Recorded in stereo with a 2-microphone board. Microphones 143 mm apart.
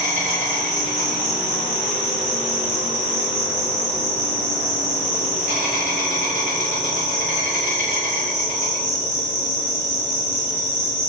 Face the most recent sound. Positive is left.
turn(degrees=-60)  # may be behind; listen again after turning